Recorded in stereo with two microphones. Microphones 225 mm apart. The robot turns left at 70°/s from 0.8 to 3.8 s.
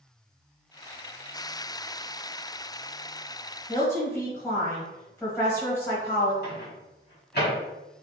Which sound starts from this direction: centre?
A woman speaking, at 3.7 s.